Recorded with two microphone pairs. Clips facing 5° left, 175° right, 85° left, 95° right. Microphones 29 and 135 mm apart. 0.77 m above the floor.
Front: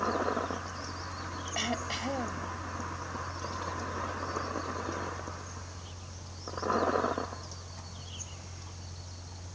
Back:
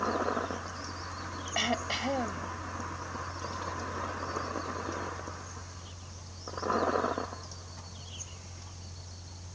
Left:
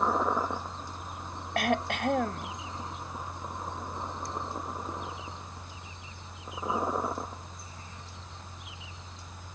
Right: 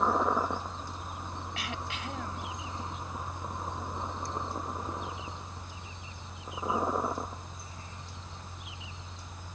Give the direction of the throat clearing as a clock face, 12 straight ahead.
8 o'clock.